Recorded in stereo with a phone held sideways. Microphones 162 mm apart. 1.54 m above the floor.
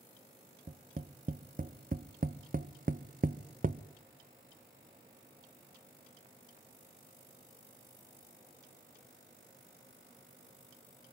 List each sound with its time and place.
0.7 s tapping: 60° right (ahead or behind), 0.8 m